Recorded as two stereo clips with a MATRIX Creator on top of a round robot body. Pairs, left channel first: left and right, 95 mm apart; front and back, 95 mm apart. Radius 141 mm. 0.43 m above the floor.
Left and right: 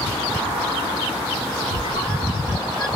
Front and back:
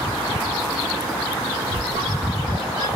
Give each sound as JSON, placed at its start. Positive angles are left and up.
{"t": 1.7, "sound": "a squeak", "azimuth_deg": 135, "distance_m": 1.5}